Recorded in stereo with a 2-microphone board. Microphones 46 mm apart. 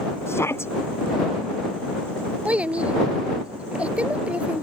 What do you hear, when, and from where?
0.3 s a shout: 65° left (ahead or behind)
2.5 s a child speaking: 30° right (ahead or behind)